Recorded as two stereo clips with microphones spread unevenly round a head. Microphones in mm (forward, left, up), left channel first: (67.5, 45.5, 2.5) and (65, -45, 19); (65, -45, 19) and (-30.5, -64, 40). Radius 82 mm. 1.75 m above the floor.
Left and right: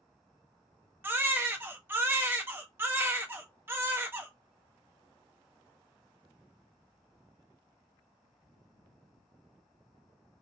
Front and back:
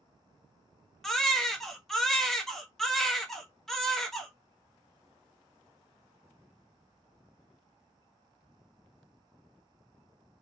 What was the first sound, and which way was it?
A baby crying, 95° right.